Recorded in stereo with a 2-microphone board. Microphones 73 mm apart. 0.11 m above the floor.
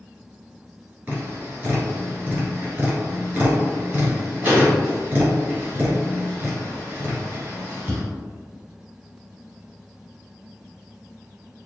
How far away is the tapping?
About 2.0 m.